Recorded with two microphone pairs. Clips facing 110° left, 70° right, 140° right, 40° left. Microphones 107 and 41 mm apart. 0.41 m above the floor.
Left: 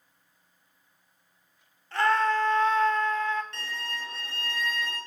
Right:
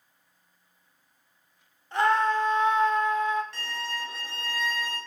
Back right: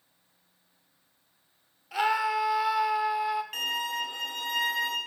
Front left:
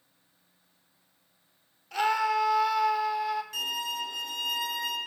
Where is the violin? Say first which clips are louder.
Right 2 dB, back right 2 dB; 160° right, 1.1 m.